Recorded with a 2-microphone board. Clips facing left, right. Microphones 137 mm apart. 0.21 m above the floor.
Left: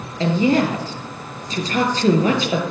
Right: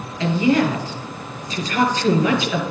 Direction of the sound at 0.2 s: 35° left (ahead or behind).